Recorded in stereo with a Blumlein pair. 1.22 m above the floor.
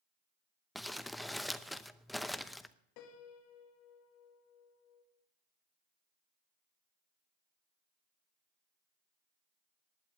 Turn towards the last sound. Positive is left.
turn(degrees=45)